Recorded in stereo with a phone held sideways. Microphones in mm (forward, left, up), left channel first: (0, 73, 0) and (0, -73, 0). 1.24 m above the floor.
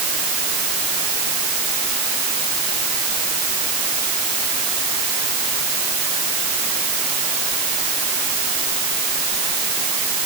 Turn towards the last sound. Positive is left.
No sound to turn to.